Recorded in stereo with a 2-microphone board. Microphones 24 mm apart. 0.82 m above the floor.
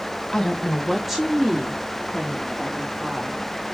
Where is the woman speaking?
30° left (ahead or behind), 1.2 m; by 3.5 s 50° right (ahead or behind), 3.5 m.